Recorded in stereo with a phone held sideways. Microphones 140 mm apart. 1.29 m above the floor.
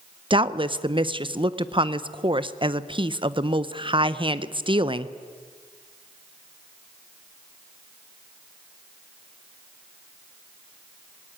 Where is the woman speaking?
35° right (ahead or behind), 0.7 m.